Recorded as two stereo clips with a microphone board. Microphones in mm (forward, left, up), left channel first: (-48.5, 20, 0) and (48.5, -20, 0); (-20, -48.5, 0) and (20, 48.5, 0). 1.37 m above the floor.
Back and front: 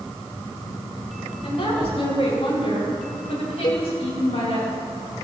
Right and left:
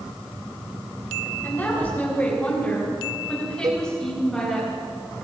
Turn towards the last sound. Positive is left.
turn(degrees=115)